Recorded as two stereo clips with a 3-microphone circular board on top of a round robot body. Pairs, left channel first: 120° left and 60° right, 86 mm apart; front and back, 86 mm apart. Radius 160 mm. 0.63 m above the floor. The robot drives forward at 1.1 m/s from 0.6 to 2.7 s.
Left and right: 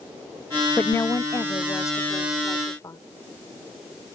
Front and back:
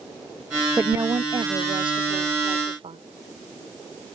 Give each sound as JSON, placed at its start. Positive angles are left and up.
{"t": 0.8, "sound": "a woman speaking", "azimuth_deg": 140}